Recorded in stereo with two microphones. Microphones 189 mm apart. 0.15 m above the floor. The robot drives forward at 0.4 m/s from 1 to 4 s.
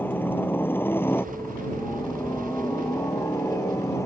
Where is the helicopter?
10° left (ahead or behind); by 4.1 s 15° left (ahead or behind).